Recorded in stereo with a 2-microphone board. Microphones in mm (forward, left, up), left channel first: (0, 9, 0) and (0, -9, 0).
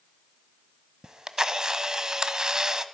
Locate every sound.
1.0 s a camera shutter: 35° right (ahead or behind), 0.7 m